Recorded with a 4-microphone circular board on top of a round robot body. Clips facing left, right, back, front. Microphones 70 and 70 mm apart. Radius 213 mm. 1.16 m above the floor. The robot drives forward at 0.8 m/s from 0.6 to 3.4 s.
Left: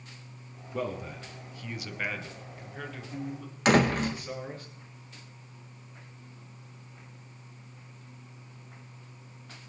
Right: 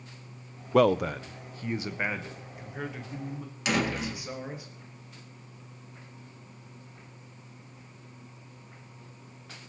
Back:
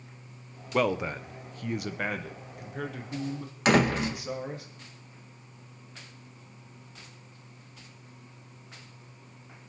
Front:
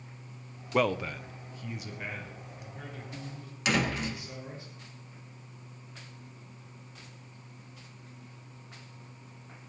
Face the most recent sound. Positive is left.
turn(degrees=130)